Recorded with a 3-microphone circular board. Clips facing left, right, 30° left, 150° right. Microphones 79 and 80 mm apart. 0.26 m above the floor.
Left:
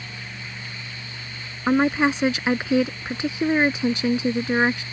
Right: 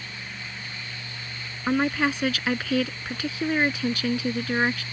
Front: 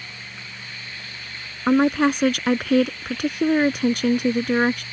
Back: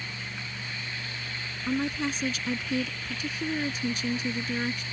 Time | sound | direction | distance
1.7 | a woman speaking | 25° left | ?